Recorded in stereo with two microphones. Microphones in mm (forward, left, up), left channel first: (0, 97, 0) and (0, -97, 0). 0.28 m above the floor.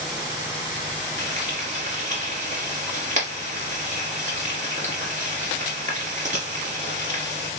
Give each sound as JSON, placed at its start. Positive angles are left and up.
{"t": 1.2, "sound": "frying", "side_deg": -40, "distance_m": 2.5}